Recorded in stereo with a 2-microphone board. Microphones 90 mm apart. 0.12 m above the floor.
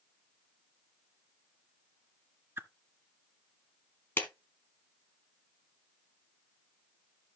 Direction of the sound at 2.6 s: 30° right (ahead or behind).